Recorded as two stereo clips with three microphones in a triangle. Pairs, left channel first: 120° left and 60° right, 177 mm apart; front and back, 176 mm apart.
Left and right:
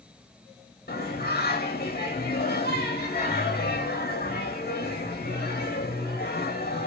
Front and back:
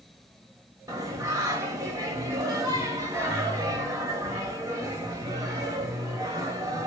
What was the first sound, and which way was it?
Singing, 110° left.